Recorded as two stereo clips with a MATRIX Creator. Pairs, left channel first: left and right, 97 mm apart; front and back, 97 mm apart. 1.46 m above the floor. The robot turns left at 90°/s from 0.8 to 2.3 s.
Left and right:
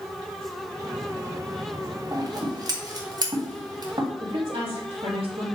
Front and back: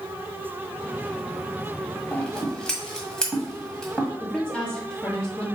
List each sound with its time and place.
2.1 s scissors: 60° right, 1.8 m; by 4.1 s 80° right, 1.8 m
4.2 s a woman speaking: 80° right, 2.5 m